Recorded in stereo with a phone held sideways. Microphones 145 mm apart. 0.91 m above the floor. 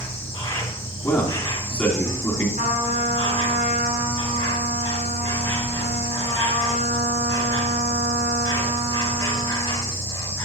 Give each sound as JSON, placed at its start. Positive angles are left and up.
{"t": 0.0, "sound": "an insect", "side_deg": 20, "distance_m": 1.8}
{"t": 1.0, "sound": "a man speaking", "side_deg": 10, "distance_m": 3.0}
{"t": 2.6, "sound": "a trumpet", "side_deg": -70, "distance_m": 5.5}